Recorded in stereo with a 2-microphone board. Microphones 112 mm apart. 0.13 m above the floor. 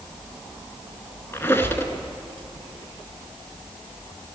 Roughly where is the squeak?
Left.